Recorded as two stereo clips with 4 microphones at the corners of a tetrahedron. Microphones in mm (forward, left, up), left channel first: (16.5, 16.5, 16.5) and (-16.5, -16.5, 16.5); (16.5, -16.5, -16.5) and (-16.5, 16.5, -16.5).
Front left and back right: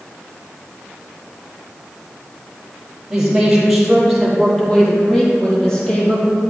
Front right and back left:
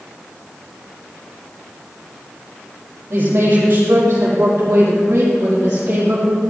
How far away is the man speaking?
About 5.5 m.